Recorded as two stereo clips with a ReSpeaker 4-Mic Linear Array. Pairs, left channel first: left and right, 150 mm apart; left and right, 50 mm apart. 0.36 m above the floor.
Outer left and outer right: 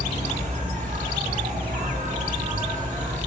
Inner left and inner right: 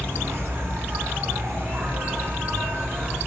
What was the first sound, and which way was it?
An insect, 60° right (ahead or behind).